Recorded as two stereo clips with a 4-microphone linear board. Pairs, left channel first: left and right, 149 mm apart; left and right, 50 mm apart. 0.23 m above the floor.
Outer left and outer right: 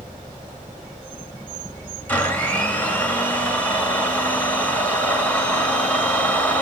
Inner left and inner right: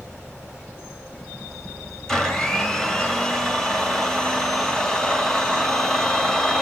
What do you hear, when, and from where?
2.1 s a blender: 10° left (ahead or behind), 3 m